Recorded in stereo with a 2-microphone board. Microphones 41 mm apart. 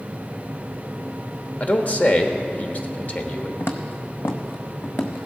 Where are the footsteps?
70° left (ahead or behind), 1.1 m; by 5.3 s 50° left (ahead or behind), 1.5 m.